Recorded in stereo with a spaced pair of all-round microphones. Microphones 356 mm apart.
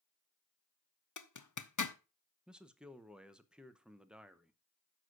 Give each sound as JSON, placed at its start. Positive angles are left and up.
{"t": 1.2, "sound": "a zipper", "side_deg": 55, "distance_m": 0.7}
{"t": 2.5, "sound": "a man speaking", "side_deg": -5, "distance_m": 0.8}